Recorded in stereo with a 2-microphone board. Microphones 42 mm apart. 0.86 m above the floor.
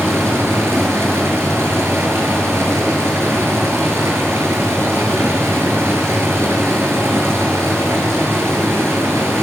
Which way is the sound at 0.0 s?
85° right.